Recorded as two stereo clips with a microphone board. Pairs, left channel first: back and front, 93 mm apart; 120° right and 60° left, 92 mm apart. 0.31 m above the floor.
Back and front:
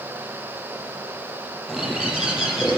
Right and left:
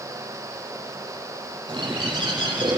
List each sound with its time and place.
1.7 s a bird: 85° left, 4.5 m